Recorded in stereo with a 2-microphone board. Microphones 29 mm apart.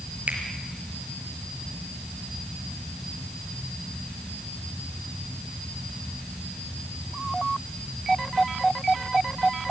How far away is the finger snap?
About 5.5 m.